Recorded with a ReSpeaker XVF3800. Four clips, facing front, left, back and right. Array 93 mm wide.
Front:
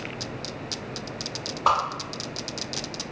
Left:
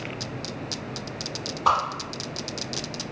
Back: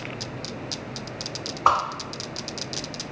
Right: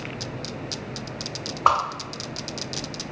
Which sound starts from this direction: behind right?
A whoosh, at 1.6 s.